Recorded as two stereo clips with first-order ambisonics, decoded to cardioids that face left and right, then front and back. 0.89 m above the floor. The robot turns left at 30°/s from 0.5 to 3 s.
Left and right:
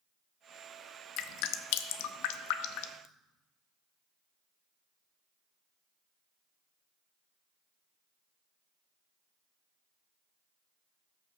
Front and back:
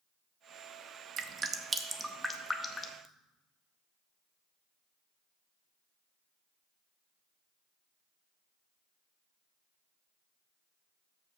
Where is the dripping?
120° left, 0.6 m; by 3.0 s 65° left, 0.6 m.